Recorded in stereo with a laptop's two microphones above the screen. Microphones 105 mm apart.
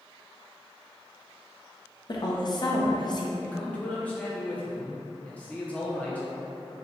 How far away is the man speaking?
About 0.6 m.